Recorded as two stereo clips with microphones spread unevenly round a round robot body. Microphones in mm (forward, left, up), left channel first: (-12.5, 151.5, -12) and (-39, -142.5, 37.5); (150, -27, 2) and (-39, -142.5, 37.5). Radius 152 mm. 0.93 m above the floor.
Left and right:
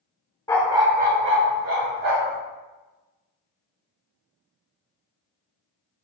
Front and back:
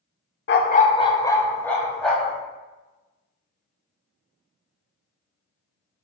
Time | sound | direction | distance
0.5 | a dog barking | straight ahead | 0.7 m